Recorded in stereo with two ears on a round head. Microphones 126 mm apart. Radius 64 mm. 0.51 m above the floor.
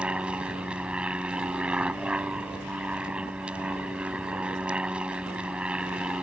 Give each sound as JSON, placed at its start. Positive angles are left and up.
{"t": 0.0, "sound": "an aircraft", "side_deg": -10}